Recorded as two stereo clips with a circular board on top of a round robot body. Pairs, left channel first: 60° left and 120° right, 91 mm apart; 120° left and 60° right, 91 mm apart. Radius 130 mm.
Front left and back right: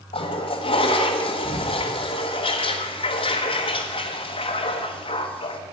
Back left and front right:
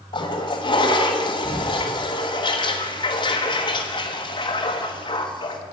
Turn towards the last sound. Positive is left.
turn(degrees=80)